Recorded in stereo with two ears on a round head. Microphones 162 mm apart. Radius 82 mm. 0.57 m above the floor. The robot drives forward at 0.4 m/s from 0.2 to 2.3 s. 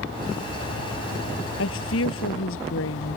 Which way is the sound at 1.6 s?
80° left.